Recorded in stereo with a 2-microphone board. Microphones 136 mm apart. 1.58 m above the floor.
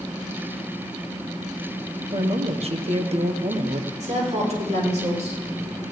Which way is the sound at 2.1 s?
50° right (ahead or behind).